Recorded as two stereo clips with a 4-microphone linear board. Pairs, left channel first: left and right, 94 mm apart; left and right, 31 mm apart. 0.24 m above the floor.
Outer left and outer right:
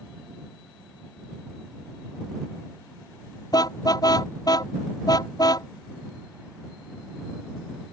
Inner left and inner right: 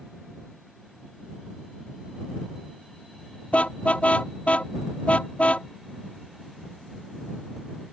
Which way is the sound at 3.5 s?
45° left (ahead or behind).